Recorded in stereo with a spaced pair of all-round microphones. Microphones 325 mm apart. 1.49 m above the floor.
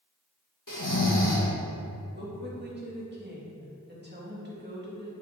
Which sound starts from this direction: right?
A woman speaking, at 2.1 s.